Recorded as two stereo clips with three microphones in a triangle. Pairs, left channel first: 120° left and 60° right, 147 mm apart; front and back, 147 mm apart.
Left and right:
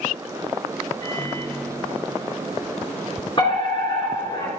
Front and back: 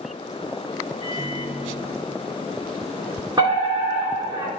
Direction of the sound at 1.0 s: 165° left.